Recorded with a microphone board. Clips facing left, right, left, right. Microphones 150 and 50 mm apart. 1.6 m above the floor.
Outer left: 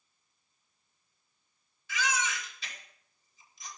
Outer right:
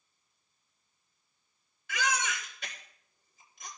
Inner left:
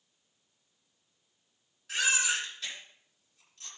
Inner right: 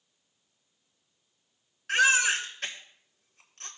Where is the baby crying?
60° right (ahead or behind), 2.5 m.